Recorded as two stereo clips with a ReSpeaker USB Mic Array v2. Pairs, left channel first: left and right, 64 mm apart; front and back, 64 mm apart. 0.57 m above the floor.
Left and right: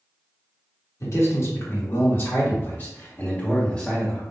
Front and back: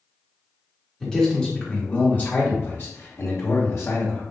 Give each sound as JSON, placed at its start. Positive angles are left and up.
{"t": 1.0, "sound": "a man speaking", "azimuth_deg": 80, "distance_m": 1.6}